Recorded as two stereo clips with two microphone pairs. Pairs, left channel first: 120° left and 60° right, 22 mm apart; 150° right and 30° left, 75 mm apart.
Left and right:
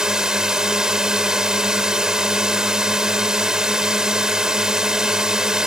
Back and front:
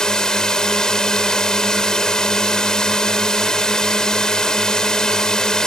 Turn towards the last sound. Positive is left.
turn(degrees=-75)